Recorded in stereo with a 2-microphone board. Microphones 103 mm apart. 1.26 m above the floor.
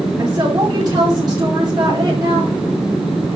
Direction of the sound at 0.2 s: 40° right (ahead or behind).